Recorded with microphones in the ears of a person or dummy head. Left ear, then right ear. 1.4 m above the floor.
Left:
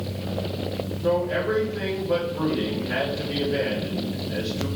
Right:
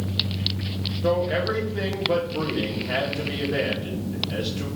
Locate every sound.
1.0 s a man speaking: 65° right (ahead or behind), 2.5 m